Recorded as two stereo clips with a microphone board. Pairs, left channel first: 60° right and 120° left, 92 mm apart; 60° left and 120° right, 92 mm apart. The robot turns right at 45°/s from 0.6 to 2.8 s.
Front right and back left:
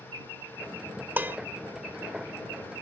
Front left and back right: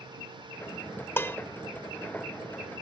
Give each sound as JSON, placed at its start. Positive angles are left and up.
{"t": 1.2, "sound": "dishes clattering", "azimuth_deg": 80}